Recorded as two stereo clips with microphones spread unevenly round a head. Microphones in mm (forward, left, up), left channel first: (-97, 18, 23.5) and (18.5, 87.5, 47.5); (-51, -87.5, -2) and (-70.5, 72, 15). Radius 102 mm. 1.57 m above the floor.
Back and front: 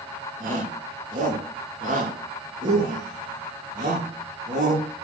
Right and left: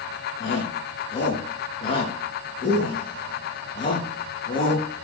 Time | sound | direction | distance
0.4 | a shout | 15° right | 2.5 m